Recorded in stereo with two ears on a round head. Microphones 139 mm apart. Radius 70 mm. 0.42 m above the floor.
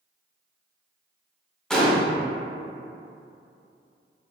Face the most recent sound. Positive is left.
turn(degrees=5)  # may be behind; listen again after turning